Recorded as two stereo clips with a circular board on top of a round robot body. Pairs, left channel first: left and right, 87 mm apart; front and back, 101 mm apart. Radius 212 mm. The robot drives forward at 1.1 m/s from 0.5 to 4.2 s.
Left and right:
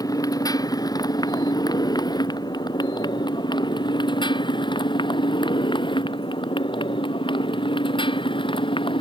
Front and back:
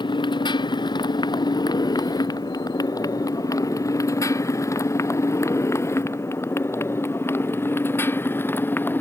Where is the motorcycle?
45° left; by 9.0 s 70° left.